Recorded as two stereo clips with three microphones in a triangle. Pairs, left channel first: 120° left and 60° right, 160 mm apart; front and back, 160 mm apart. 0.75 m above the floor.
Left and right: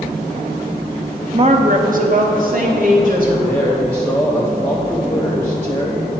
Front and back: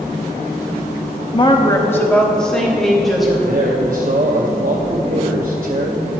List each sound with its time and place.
1.3 s a woman speaking: 25° right, 0.7 m; by 3.3 s 90° right, 3 m
3.4 s a man speaking: 165° right, 0.8 m